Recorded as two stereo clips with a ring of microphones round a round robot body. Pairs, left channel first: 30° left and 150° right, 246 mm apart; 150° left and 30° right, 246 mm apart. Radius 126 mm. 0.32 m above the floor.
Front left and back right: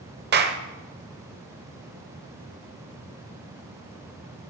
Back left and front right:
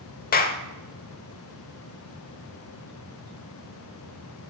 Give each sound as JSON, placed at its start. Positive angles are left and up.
{"t": 0.3, "sound": "a clap", "azimuth_deg": -175, "distance_m": 0.8}